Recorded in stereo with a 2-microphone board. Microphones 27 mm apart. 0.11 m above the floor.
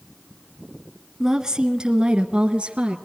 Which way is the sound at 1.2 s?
20° right (ahead or behind).